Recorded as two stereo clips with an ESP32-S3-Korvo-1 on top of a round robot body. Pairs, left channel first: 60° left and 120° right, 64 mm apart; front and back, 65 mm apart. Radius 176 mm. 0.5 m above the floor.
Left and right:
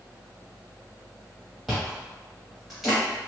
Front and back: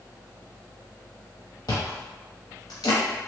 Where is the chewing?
30° right, 0.6 m.